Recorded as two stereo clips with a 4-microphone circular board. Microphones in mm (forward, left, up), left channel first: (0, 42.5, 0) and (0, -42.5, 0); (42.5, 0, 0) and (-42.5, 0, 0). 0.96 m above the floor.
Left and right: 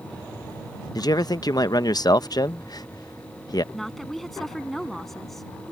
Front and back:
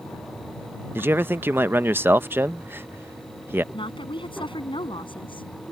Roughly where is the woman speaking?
Ahead.